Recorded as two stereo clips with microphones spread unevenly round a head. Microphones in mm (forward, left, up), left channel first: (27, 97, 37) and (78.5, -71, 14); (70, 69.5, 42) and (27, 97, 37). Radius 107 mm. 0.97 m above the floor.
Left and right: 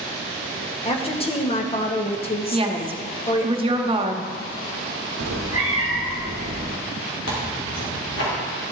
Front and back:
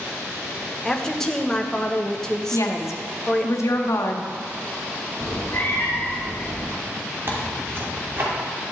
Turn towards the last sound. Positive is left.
turn(degrees=110)